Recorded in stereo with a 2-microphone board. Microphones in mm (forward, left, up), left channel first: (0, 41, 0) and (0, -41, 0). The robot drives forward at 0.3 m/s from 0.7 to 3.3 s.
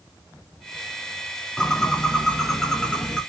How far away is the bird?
About 0.7 m.